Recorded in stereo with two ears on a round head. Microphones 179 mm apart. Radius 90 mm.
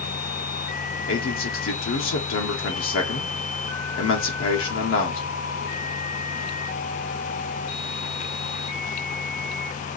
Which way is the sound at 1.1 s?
70° left (ahead or behind).